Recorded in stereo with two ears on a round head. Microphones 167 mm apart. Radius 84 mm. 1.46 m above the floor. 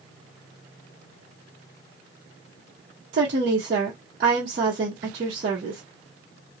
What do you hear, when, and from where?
3.1 s a woman speaking: 50° right (ahead or behind), 0.8 m